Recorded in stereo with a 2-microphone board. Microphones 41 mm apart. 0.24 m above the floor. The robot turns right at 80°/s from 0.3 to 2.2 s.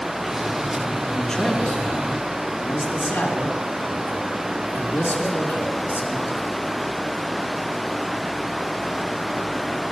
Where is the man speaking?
5° right, 3 m; by 6.6 s 85° left, 3 m.